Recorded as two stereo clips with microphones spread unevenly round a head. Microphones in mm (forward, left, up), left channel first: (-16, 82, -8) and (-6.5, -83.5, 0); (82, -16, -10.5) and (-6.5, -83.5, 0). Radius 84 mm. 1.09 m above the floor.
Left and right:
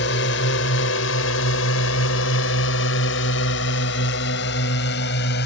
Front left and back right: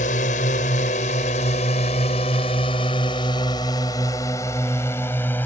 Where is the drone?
70° left; by 5.5 s 120° left.